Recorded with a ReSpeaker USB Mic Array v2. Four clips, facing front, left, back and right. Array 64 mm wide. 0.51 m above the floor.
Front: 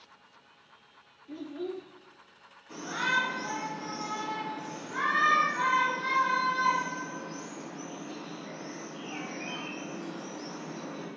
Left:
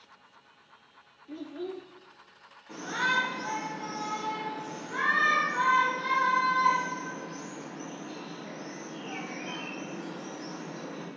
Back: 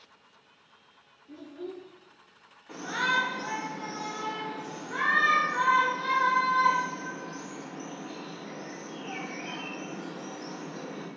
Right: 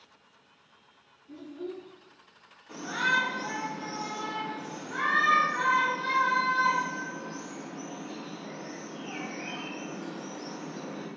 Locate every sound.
1.3 s a child speaking: 55° left, 0.5 m
2.7 s a shout: 170° left, 1.7 m